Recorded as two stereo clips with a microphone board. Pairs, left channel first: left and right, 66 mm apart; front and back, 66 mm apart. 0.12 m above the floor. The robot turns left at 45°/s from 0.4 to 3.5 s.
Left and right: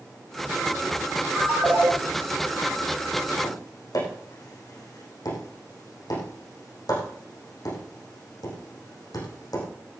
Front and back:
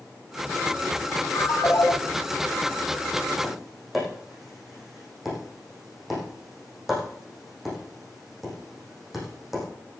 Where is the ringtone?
20° right, 1.9 m; by 1.9 s 45° right, 1.9 m.